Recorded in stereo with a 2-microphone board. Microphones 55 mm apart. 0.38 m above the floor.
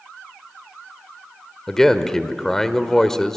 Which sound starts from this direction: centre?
A man speaking, at 1.7 s.